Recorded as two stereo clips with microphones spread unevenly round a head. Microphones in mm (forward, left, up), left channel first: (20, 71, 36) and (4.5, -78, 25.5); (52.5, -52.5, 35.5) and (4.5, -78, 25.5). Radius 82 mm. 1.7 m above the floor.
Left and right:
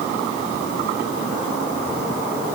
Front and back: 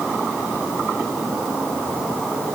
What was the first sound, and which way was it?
Only background noise.